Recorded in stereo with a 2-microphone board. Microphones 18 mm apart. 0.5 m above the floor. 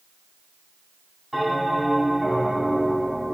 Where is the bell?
15° right (ahead or behind), 4.5 m.